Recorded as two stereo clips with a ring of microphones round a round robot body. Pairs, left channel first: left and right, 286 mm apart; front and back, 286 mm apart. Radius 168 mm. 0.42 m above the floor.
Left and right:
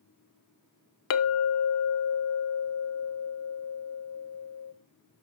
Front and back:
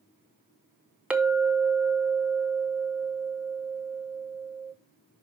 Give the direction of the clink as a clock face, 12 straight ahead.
9 o'clock.